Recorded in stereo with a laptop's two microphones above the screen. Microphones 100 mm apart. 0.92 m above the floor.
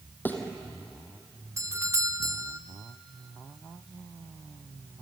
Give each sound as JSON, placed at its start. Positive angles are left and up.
{"t": 0.2, "sound": "a thud", "side_deg": 20, "distance_m": 2.5}
{"t": 1.6, "sound": "a doorbell", "side_deg": -30, "distance_m": 1.0}